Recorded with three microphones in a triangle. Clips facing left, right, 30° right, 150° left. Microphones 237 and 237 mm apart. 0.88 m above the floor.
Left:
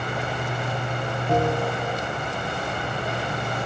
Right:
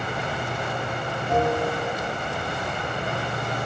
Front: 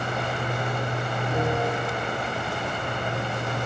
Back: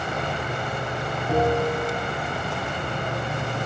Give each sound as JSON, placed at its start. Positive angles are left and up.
{"t": 0.0, "sound": "an insect", "azimuth_deg": 155, "distance_m": 5.5}
{"t": 1.3, "sound": "a bell", "azimuth_deg": 125, "distance_m": 4.5}